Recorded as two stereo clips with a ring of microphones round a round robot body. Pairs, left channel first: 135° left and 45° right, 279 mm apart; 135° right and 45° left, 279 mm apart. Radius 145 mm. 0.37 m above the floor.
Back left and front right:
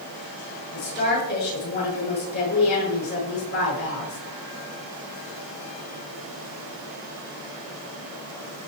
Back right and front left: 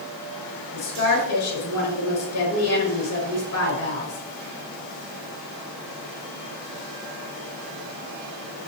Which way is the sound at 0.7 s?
170° right.